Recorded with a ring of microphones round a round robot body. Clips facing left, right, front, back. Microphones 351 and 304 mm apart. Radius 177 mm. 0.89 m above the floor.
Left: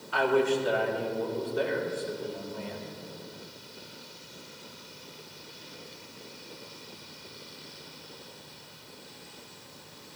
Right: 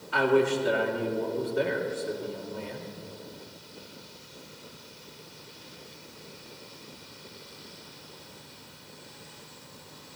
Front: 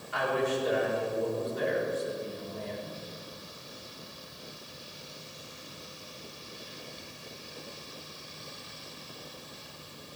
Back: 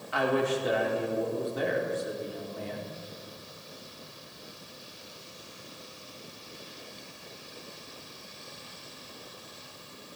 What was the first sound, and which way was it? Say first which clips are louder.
A man speaking: right 2 dB, back 2 dB; 150° right.